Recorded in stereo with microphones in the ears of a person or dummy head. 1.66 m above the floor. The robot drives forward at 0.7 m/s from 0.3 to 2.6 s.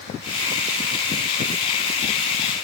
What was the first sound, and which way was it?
Only background noise.